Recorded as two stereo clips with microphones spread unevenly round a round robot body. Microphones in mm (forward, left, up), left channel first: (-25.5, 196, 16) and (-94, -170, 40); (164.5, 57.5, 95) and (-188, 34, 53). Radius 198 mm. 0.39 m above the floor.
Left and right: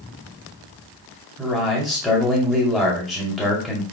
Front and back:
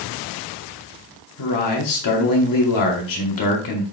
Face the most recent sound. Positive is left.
turn(degrees=-10)